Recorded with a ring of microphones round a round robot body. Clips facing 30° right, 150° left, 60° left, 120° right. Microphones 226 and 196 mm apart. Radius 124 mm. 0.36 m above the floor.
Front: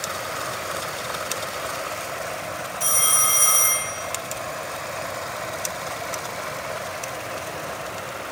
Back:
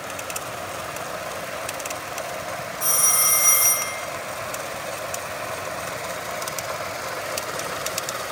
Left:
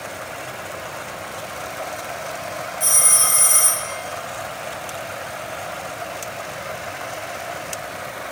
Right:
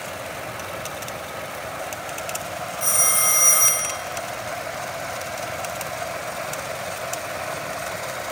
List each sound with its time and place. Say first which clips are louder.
2.8 s a phone ringing: even, even; 40° left, 1.3 m